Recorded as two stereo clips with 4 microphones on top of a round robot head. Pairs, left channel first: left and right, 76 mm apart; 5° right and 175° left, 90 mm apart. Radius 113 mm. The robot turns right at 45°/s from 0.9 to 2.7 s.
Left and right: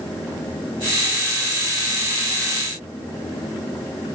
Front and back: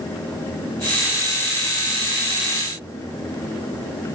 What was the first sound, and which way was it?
Only background noise.